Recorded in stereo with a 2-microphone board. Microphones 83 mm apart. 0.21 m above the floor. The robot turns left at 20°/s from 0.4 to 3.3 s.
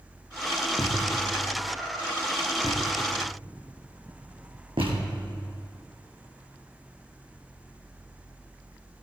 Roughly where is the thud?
Right.